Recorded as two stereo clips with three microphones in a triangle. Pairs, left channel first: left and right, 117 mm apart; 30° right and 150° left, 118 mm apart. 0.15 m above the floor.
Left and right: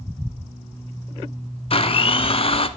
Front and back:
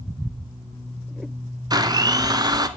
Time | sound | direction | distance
1.7 | a blender | 105° left | 0.5 m